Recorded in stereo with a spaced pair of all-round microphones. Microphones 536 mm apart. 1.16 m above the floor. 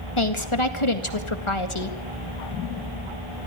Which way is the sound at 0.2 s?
55° left (ahead or behind).